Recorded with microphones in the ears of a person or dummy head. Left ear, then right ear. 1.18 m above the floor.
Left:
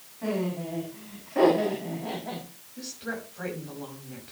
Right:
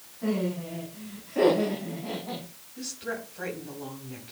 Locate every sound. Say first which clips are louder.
0.2 s laughter: even; 30° left (ahead or behind), 7 m; by 2.4 s 45° left (ahead or behind), 6.5 m
2.8 s a woman speaking: right 1 dB; centre (ahead or behind), 6 m